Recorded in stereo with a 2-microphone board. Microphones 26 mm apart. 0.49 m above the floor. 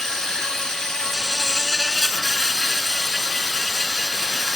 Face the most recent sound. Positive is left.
turn(degrees=20)  # may be behind; listen again after turning